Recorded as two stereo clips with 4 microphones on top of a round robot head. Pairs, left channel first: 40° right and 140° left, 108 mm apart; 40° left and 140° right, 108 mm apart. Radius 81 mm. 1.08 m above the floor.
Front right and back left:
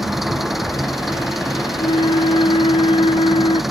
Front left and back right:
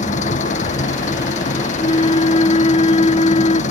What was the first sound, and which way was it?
An engine running, 50° left.